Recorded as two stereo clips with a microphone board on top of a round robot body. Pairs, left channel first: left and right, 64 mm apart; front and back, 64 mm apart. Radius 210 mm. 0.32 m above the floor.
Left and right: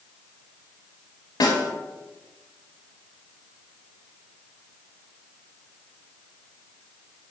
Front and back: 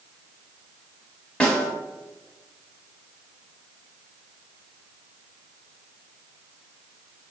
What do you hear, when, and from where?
1.4 s a snare drum: 75° left, 0.6 m